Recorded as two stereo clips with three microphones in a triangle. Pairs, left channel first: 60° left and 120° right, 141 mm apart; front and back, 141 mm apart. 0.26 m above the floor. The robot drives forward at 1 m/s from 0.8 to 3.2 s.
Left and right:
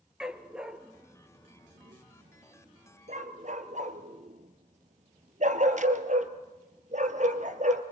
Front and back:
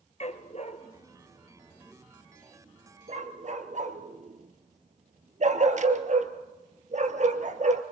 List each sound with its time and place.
0.2 s a dog barking: 35° right, 1.3 m; by 7.8 s 150° right, 1.5 m